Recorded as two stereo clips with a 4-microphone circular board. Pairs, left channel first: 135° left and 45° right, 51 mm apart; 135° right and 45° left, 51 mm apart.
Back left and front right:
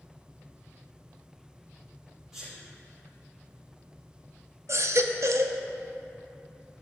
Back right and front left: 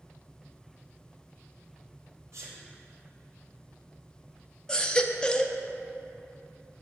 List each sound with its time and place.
2.3 s a sneeze: 35° left, 3 m
4.7 s a baby crying: 65° right, 0.6 m